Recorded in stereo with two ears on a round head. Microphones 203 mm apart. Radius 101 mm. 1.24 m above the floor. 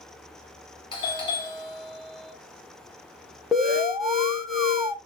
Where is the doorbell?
20° left (ahead or behind), 1.1 m.